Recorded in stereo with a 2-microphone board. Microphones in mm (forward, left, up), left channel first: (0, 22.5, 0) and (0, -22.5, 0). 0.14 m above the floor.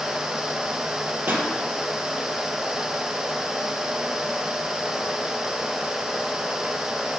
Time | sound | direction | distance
1.3 | a pop | 50° right (ahead or behind) | 1.7 m